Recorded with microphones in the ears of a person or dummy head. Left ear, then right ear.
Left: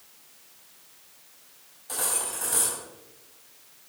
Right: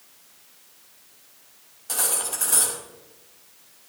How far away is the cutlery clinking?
About 4.5 m.